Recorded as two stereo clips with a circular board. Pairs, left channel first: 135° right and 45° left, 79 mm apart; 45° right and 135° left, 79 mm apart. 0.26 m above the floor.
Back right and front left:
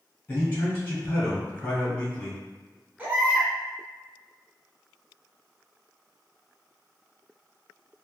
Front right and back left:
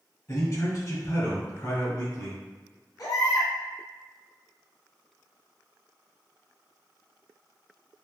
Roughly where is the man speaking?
Right.